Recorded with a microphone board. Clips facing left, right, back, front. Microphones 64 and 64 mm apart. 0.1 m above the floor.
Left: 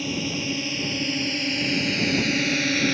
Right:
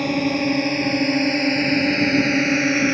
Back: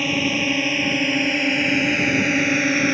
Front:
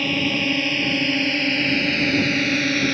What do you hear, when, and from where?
0.0 s a drone: 100° right; by 3.0 s 125° right